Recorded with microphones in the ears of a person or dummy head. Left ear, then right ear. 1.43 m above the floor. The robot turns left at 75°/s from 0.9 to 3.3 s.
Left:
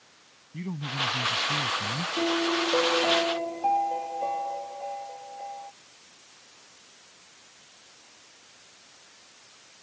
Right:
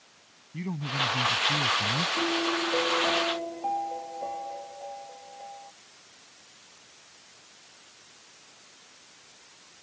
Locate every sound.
0.5 s a man speaking: 20° right; by 2.1 s 110° right
2.2 s a piano: 125° left; by 5.7 s 40° left